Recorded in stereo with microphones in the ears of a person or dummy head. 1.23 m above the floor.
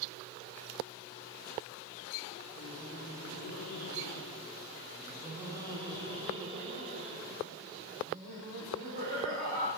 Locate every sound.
2.5 s laughter: 70° left (ahead or behind), 1.4 m; by 9.7 s 35° right (ahead or behind), 4.5 m